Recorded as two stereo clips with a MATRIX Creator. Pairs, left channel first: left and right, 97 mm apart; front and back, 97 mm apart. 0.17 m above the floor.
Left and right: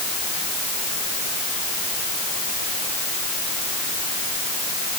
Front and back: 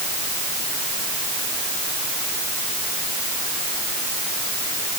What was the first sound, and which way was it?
Only background noise.